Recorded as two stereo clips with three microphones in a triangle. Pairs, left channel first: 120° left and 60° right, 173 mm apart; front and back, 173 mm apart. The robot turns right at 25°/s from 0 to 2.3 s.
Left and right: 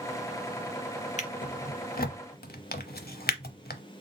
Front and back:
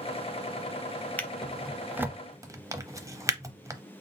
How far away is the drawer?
About 0.6 m.